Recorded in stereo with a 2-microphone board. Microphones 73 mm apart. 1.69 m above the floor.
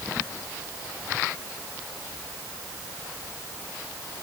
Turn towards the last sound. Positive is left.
No sound to turn to.